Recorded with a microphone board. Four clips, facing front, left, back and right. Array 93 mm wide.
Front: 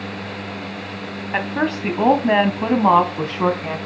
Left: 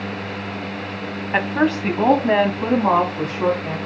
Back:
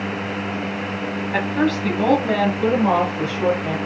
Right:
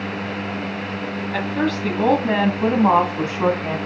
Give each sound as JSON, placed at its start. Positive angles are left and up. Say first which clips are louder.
{"t": 1.3, "sound": "a woman speaking", "louder": "left 4 dB, back 1 dB", "azimuth_deg": 65, "distance_m": 1.8}